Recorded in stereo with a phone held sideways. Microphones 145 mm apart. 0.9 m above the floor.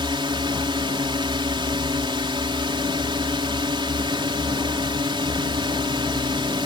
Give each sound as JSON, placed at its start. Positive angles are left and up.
{"t": 0.0, "sound": "a drone", "side_deg": -35}